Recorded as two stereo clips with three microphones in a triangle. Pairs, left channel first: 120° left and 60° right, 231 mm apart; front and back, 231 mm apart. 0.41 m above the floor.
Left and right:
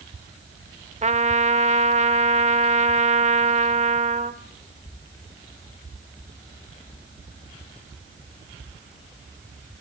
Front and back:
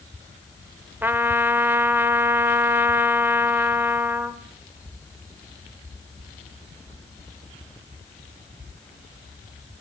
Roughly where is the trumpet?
Right.